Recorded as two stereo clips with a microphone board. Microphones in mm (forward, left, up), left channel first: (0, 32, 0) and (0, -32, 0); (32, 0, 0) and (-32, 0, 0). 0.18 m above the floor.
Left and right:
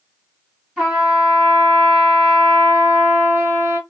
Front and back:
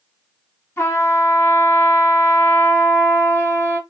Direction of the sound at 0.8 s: 20° right.